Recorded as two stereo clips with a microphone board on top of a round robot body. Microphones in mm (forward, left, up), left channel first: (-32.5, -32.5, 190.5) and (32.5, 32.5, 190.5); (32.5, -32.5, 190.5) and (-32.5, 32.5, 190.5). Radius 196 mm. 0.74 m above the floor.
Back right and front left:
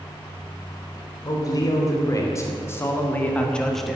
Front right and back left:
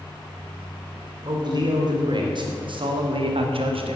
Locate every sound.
1.2 s a man speaking: 175° left, 3.5 m; by 4.0 s 130° left, 1.7 m